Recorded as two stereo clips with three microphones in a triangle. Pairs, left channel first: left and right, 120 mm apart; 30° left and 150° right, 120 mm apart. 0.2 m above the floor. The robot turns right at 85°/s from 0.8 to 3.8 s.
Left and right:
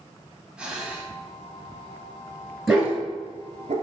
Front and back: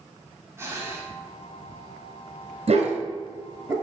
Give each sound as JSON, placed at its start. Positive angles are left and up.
{"t": 0.6, "sound": "breathing", "azimuth_deg": -155, "distance_m": 1.4}
{"t": 2.7, "sound": "a dog barking", "azimuth_deg": 180, "distance_m": 1.4}